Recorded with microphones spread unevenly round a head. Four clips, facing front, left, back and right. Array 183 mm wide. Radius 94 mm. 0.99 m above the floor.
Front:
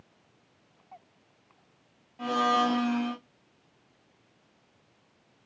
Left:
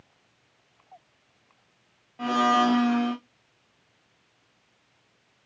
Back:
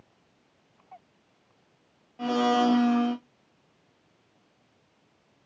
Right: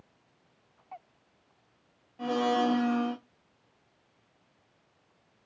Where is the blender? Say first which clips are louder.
Left 5 dB, back 2 dB; 105° left, 0.9 m.